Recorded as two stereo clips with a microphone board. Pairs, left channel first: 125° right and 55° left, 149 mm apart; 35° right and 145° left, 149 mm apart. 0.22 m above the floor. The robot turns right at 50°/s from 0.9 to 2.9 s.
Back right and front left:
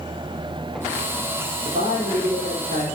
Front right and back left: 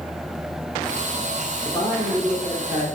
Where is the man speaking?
25° left, 5 m; by 2.9 s 85° left, 5 m.